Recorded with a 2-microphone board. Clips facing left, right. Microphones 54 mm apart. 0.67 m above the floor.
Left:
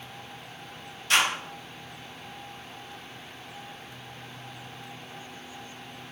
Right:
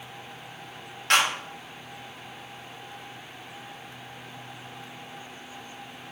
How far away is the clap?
About 1.4 m.